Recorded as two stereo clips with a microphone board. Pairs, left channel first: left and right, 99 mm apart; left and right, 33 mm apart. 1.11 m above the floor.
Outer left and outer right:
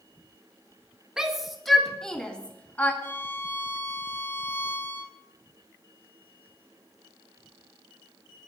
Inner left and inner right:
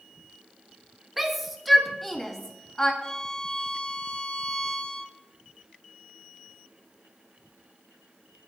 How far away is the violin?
About 1.3 m.